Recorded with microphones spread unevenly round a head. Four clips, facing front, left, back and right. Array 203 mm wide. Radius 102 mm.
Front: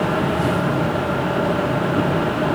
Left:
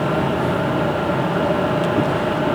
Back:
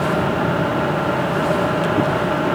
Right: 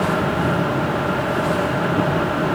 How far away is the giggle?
No giggle in this recording.